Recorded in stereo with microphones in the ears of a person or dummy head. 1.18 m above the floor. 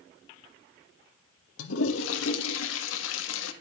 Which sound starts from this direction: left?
A toilet flushing, at 1.6 s.